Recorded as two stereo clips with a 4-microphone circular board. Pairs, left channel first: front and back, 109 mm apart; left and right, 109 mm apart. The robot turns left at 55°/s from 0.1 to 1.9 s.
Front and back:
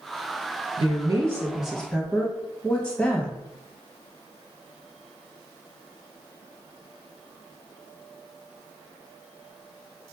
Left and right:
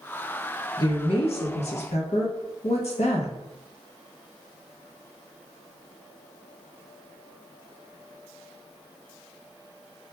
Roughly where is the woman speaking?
Behind left.